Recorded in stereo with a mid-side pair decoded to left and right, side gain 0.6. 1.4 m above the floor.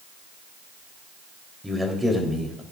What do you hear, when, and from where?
1.6 s a man speaking: 10° right, 3.5 m